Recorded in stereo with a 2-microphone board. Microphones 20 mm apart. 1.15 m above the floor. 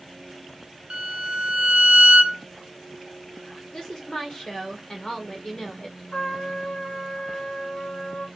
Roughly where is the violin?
Right.